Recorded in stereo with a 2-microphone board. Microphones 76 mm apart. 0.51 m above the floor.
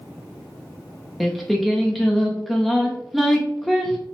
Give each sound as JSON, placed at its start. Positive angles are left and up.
{"t": 1.2, "sound": "singing", "side_deg": 0, "distance_m": 0.7}